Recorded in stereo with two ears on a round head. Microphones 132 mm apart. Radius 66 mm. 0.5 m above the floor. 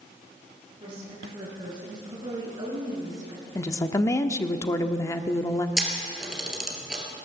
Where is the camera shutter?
5° right (ahead or behind), 3 m.